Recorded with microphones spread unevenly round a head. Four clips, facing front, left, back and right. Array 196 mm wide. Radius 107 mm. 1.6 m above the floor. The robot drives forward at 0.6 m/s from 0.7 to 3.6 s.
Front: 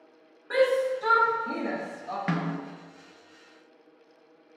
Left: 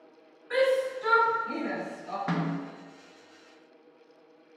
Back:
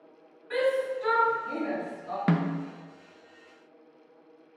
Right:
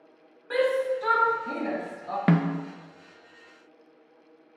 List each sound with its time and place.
0.5 s a shout: 40° right, 3 m; by 2.2 s 55° right, 2 m
2.3 s a snare drum: 105° right, 0.6 m; by 2.6 s 125° right, 0.7 m